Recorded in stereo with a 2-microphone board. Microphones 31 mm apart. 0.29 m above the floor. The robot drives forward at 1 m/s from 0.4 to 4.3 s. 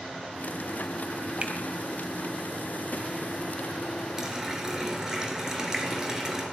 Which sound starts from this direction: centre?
A running tap, at 4.2 s.